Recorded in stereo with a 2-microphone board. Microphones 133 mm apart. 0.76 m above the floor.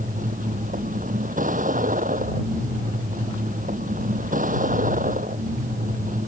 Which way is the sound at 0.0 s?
90° right.